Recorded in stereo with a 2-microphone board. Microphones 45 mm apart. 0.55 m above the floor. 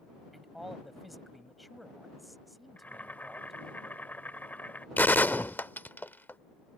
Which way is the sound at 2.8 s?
45° left (ahead or behind).